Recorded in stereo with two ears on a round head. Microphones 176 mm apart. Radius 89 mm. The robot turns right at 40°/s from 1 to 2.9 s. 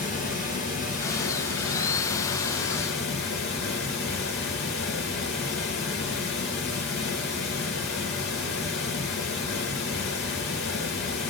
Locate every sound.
0.0 s running water: 40° left, 2.5 m; by 11.3 s 115° left, 2.5 m